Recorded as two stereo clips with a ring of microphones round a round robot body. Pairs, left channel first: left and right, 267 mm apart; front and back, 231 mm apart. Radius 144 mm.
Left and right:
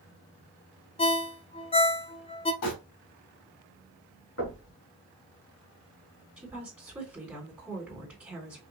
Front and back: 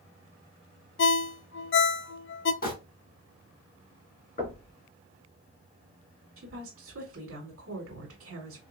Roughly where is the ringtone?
Ahead left.